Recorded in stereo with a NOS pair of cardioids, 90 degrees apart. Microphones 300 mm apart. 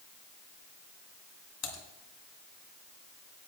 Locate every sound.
1.6 s typing on a keyboard: 65° left, 2.5 m